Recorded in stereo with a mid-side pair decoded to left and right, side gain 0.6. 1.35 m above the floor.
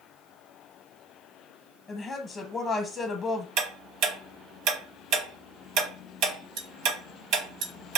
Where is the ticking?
70° right, 0.7 m.